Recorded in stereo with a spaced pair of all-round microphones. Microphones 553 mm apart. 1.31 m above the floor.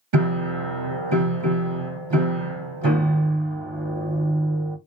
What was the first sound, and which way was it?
A piano, 50° right (ahead or behind).